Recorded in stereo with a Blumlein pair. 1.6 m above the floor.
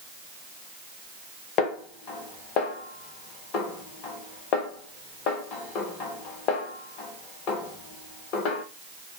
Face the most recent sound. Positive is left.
turn(degrees=35)